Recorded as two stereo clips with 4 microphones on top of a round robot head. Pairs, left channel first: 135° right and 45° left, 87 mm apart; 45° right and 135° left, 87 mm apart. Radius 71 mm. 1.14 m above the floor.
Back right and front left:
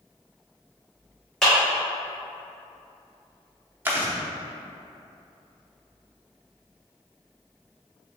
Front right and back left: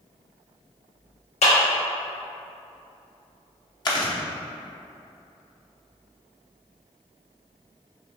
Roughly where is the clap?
Ahead right.